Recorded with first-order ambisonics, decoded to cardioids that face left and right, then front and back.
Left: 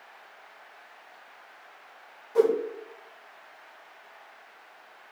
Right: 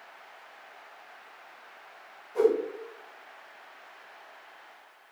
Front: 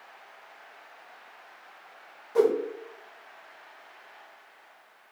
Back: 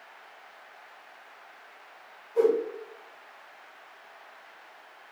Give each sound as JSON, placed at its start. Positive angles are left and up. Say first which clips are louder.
{"t": 2.4, "sound": "a whoosh", "louder": "left 1 dB, even", "azimuth_deg": 30, "distance_m": 0.5}